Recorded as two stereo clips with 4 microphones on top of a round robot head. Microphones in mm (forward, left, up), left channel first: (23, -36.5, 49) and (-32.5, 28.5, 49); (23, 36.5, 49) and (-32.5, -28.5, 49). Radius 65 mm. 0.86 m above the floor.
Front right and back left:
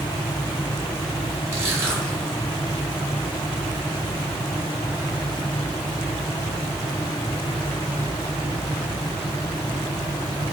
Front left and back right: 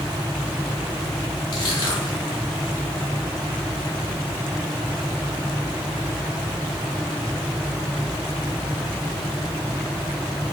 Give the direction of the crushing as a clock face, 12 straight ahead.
10 o'clock.